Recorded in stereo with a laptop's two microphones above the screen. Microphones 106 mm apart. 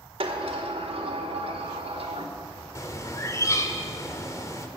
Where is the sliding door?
60° right (ahead or behind), 1.8 m.